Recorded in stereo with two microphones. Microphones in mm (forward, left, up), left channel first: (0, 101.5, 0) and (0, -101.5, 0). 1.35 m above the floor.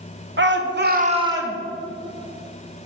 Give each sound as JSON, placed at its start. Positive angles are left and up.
{"t": 0.4, "sound": "a shout", "side_deg": -65, "distance_m": 1.2}